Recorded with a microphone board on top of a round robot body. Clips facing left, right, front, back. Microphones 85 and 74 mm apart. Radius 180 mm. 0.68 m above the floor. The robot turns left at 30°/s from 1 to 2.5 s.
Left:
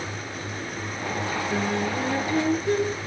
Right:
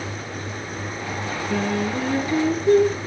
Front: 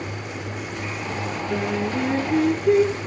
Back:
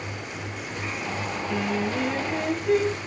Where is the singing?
45° right, 5.5 m; by 3.0 s 75° right, 5.5 m.